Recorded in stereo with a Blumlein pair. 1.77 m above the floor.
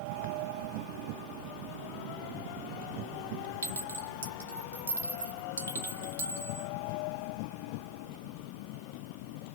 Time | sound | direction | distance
3.6 | a clink | 60° right | 2.0 m